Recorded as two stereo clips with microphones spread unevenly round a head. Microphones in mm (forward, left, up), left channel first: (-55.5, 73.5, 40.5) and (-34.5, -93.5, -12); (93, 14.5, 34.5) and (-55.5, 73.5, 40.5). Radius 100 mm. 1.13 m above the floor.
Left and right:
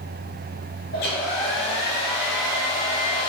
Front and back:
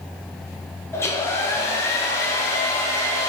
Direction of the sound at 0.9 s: 55° left.